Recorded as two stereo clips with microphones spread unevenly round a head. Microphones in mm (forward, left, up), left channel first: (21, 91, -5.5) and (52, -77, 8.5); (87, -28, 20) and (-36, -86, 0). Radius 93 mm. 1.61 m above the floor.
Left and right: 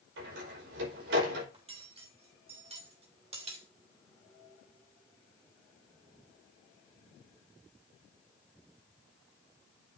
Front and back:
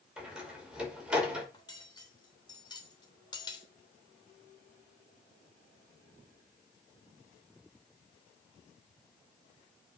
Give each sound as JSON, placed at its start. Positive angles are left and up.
{"t": 0.2, "sound": "a door slam", "azimuth_deg": -70, "distance_m": 5.0}
{"t": 1.5, "sound": "cutlery clinking", "azimuth_deg": -30, "distance_m": 3.0}